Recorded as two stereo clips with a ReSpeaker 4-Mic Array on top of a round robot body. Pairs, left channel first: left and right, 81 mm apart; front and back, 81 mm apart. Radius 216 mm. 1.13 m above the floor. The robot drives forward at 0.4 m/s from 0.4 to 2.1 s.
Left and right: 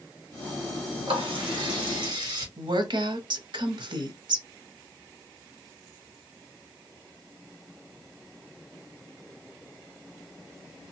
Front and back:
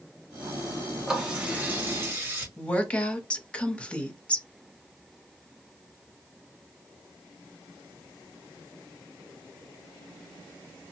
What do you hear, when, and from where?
1.1 s a running tap: 100° right, 1.0 m; by 2.5 s 120° right, 1.1 m
2.6 s a woman speaking: 75° right, 0.8 m